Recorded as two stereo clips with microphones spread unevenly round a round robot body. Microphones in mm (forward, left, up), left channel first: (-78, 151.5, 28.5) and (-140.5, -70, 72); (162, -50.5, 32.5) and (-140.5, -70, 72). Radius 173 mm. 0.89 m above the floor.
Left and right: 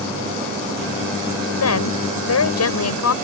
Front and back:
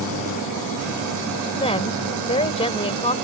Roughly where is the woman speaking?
Left.